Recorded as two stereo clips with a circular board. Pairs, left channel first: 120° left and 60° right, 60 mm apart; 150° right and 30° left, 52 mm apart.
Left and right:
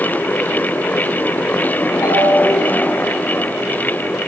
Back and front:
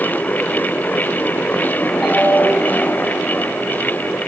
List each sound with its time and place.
2.0 s a ringtone: 125° left, 2.5 m